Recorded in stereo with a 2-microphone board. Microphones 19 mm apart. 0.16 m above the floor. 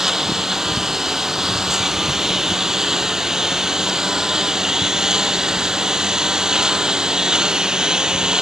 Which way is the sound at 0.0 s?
15° right (ahead or behind).